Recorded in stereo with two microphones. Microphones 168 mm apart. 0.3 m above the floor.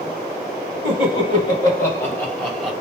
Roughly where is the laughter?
Left.